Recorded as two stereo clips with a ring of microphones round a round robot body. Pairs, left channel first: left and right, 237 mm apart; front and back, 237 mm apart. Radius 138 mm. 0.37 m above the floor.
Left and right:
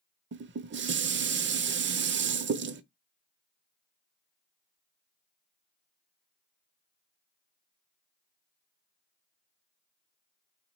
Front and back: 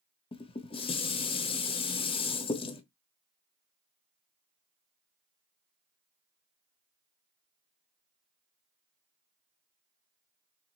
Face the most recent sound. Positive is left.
turn(degrees=-65)